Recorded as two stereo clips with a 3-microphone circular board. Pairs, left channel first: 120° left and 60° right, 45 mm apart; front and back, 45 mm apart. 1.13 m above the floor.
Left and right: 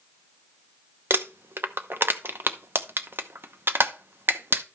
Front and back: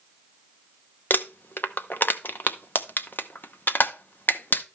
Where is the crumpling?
35° right, 0.8 m.